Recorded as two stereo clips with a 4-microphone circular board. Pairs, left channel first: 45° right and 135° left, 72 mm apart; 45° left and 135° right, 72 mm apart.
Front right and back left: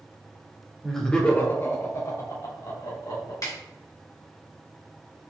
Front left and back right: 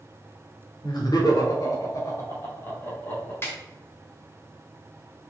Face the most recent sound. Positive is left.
turn(degrees=-10)